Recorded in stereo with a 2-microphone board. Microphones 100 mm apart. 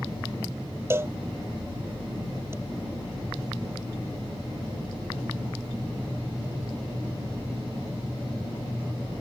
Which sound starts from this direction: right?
A cowbell, at 0.9 s.